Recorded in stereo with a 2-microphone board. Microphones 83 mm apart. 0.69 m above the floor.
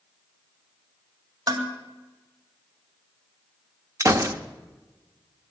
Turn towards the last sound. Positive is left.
turn(degrees=-40)  # may be behind; listen again after turning